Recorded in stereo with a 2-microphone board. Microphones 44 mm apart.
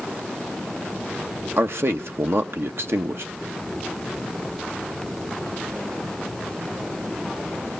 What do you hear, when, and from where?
1.6 s a man speaking: 60° right (ahead or behind), 0.9 m